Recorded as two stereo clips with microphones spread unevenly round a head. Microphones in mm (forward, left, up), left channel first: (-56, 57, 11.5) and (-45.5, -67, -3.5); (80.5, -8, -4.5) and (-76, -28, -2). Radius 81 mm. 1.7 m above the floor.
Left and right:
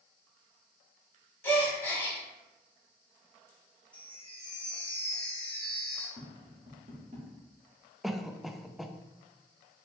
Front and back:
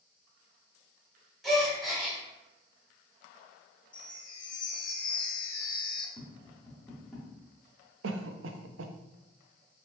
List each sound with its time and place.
1.4 s a gasp: 100° left, 1.4 m
3.9 s a chime: 35° left, 0.7 m
6.2 s tapping: 80° right, 1.7 m
8.0 s a cough: 175° right, 0.6 m